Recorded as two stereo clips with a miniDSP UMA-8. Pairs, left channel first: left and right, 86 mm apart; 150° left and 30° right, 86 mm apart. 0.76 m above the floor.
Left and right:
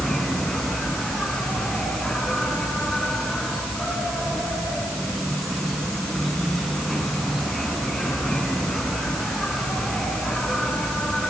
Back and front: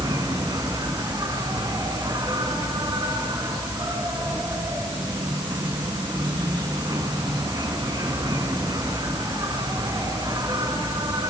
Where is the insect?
Straight ahead, 7 m.